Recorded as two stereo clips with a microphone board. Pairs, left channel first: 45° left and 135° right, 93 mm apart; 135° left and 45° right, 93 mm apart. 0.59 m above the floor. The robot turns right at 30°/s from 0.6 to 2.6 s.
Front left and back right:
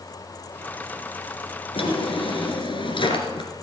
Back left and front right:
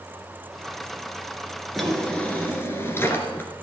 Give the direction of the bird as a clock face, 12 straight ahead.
No bird in this recording.